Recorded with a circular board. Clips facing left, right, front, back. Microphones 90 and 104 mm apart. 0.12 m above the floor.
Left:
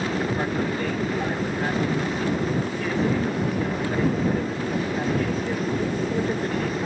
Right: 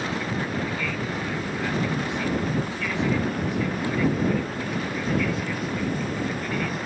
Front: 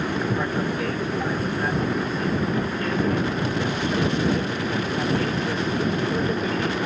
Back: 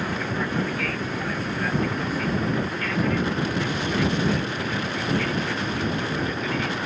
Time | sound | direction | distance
0.0 | an aircraft | 60° left | ?